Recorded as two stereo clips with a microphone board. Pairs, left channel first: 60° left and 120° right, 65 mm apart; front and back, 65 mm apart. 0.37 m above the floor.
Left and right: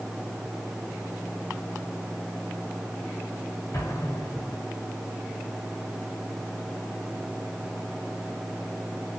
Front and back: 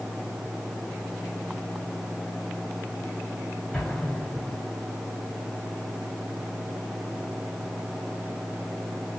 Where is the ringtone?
No ringtone in this recording.